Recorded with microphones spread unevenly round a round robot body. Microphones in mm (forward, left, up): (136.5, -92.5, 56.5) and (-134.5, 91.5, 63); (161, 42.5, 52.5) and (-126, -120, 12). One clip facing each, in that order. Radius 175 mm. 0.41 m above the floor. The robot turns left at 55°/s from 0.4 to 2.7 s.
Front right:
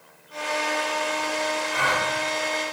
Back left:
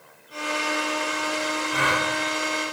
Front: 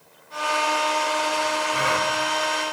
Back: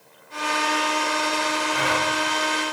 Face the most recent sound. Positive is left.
turn(degrees=55)